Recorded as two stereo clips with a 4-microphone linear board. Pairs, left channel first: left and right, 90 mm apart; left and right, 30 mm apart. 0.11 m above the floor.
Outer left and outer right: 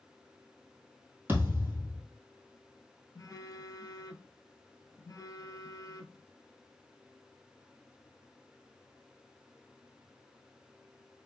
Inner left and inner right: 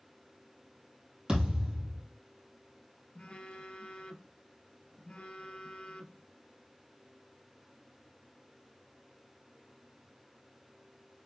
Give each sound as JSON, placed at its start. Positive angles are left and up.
{"t": 1.3, "sound": "a thud", "side_deg": -25, "distance_m": 1.6}
{"t": 3.1, "sound": "a phone buzzing", "side_deg": 40, "distance_m": 0.5}